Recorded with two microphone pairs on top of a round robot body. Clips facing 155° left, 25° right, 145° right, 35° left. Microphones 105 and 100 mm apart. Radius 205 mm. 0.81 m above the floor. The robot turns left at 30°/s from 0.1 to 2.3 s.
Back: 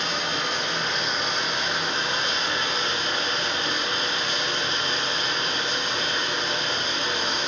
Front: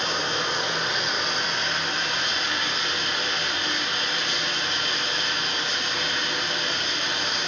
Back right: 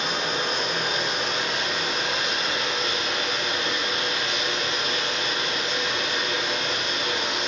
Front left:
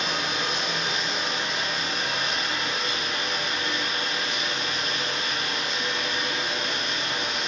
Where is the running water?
85° right, 2 m; by 7.5 s 150° right, 2 m.